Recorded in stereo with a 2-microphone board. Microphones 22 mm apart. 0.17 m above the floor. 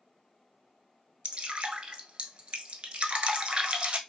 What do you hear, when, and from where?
1.2 s dripping: 65° right (ahead or behind), 0.6 m